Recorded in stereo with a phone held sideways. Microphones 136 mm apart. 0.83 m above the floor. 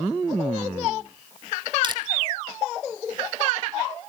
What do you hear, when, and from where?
1.8 s crushing: 35° right (ahead or behind), 2 m